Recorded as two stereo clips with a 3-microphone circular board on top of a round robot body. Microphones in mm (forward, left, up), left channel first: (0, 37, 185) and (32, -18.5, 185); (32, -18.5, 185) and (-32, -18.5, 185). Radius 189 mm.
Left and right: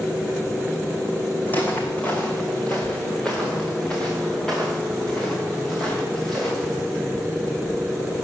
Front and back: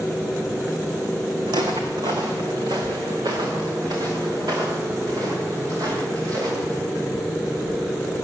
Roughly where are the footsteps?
Behind.